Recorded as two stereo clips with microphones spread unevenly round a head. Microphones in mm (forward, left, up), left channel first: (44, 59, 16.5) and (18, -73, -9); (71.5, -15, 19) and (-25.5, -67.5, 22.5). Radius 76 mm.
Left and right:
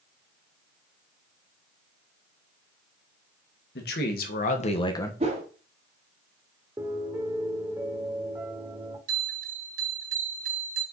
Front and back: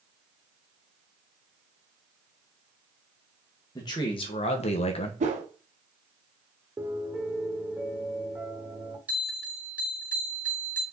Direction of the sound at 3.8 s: 90° left.